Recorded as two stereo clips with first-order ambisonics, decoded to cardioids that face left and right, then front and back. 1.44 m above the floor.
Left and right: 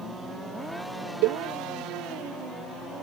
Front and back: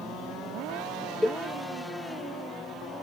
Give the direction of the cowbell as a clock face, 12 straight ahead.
3 o'clock.